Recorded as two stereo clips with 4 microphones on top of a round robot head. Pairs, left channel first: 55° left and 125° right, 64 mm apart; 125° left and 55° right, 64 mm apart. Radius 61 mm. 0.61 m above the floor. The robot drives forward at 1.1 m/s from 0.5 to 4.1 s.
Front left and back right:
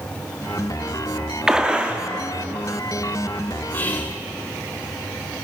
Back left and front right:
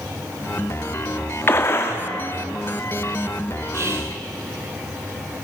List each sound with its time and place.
1.5 s a gunshot: 155° left, 1.5 m; by 2.0 s 165° left, 2.0 m
3.7 s whispering: 10° right, 3 m